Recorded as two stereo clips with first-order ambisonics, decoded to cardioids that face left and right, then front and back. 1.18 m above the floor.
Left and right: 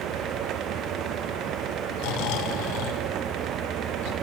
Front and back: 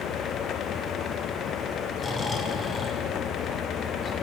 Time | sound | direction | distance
2.0 | snoring | 75° left | 2.5 m